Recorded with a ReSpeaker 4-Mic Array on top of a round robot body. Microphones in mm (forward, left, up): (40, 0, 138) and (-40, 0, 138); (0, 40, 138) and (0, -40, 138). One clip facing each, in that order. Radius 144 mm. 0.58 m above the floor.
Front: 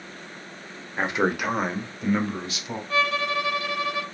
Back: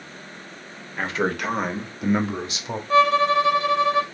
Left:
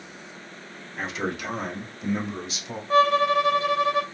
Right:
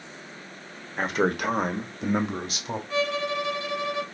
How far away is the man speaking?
About 1.0 m.